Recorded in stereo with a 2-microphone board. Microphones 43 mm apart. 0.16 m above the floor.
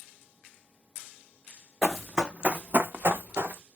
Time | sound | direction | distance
1.8 | running footsteps | 5° left (ahead or behind) | 0.6 m